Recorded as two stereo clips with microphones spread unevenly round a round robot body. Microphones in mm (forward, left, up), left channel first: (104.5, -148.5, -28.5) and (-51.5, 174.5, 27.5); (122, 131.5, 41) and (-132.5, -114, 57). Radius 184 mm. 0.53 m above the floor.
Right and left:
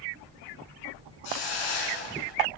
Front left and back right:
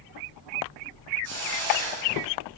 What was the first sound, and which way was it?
A hiss, 90° right.